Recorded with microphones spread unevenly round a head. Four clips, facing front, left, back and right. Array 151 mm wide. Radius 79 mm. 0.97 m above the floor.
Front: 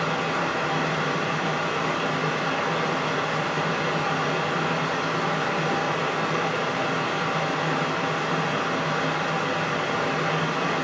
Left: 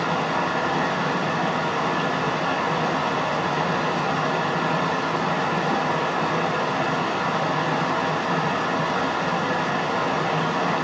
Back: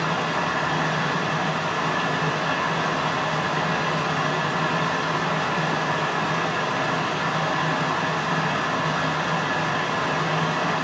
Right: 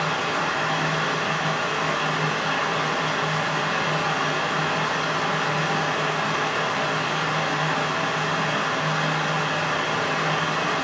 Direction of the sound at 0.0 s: 85° left.